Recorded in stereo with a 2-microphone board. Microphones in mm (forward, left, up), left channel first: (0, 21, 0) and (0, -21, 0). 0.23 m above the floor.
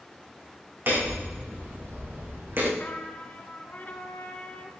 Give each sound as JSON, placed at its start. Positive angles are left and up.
{"t": 0.9, "sound": "hammering", "side_deg": -60, "distance_m": 5.0}
{"t": 2.8, "sound": "a trumpet", "side_deg": 45, "distance_m": 2.0}